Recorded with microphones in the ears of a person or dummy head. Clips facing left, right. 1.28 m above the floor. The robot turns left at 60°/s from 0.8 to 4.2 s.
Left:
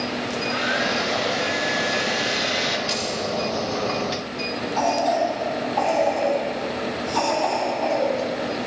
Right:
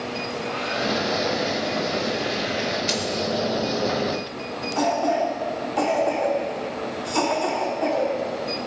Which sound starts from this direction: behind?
A hair dryer, at 0.3 s.